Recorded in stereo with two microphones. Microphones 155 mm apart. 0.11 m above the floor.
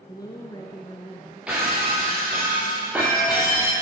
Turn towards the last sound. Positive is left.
turn(degrees=-10)  # may be behind; listen again after turning